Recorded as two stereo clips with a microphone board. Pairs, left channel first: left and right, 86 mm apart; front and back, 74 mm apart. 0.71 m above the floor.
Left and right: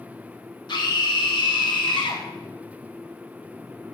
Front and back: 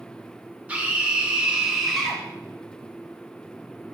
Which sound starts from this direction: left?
A scream, at 0.7 s.